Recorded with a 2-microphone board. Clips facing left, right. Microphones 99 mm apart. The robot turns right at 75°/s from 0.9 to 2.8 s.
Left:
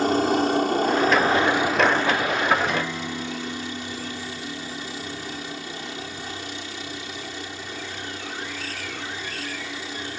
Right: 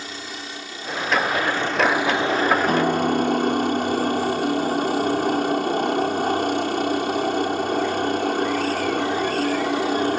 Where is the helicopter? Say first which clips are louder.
Left 15 dB; 110° left; by 10.2 s 105° right.